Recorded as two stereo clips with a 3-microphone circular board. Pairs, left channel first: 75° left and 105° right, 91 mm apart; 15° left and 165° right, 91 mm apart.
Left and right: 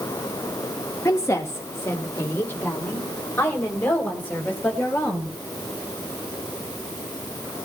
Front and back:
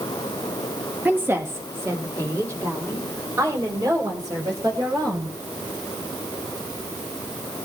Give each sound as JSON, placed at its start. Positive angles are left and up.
{"t": 1.1, "sound": "a woman speaking", "azimuth_deg": 130, "distance_m": 1.7}